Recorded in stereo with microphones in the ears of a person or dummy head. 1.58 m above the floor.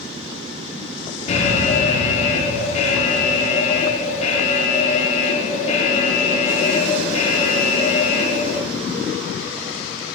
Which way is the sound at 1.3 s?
45° left (ahead or behind).